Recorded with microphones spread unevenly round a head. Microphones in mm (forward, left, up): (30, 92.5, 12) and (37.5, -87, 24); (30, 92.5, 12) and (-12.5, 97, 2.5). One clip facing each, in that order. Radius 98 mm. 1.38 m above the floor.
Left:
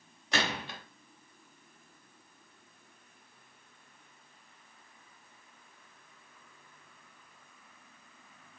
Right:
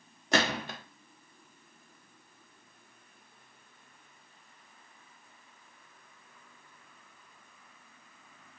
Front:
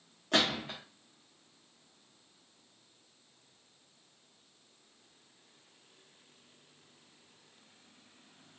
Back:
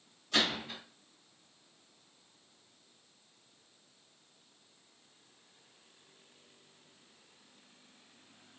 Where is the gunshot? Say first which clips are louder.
Right 5 dB, front 2 dB; 55° right, 0.6 m.